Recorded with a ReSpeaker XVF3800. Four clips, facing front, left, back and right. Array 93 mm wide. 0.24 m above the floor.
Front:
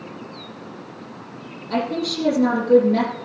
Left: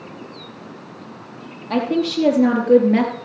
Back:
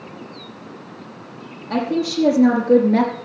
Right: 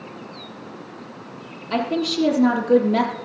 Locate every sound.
1.7 s a woman speaking: 110° left, 6 m; by 3.1 s 115° left, 4.5 m